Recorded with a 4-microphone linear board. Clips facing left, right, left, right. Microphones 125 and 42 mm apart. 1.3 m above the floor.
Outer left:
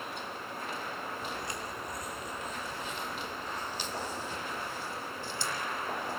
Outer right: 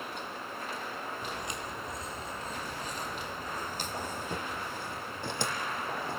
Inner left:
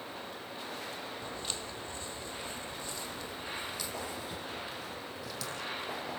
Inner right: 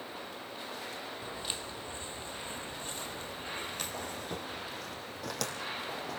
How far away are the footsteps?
About 2 m.